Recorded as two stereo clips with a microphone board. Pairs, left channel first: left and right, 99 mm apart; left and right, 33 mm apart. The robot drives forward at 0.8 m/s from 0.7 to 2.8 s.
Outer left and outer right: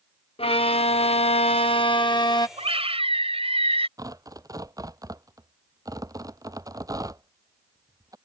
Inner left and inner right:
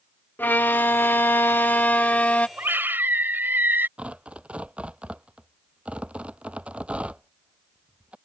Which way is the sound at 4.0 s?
35° right (ahead or behind).